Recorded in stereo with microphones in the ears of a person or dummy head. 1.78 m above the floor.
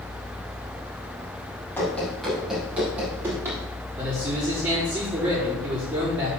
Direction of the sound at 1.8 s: 10° left (ahead or behind).